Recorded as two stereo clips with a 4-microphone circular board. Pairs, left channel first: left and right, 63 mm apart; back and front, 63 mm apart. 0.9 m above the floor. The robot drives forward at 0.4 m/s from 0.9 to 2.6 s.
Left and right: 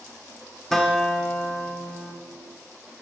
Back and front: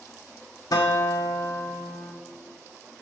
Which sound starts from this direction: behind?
A guitar, at 0.7 s.